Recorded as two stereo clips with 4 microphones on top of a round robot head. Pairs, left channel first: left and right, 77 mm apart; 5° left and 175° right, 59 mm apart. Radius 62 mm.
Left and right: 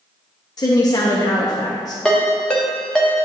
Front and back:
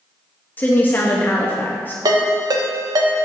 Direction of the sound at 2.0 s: 170° left.